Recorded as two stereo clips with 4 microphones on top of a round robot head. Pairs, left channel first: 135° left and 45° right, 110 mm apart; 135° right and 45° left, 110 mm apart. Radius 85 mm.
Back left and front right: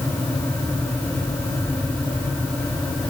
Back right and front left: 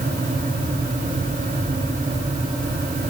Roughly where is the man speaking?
I don't hear a man speaking.